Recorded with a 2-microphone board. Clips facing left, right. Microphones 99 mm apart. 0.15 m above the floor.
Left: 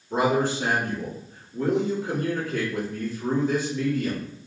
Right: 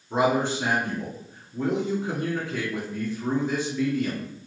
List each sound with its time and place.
0.1 s a man speaking: 20° right (ahead or behind), 1.7 m